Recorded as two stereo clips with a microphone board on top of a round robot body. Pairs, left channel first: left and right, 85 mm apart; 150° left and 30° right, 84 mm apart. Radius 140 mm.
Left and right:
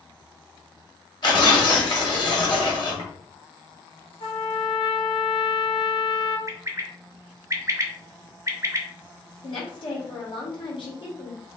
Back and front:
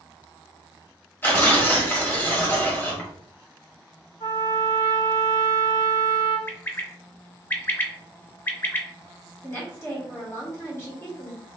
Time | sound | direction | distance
1.2 | tearing paper | 90° left | 1.7 m
4.2 | a trumpet | 115° left | 1.9 m
6.5 | a bird | 145° right | 0.7 m
9.4 | a woman speaking | 95° left | 1.5 m